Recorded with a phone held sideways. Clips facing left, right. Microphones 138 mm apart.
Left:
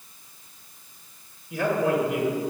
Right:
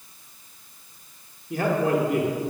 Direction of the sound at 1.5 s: 50° right (ahead or behind).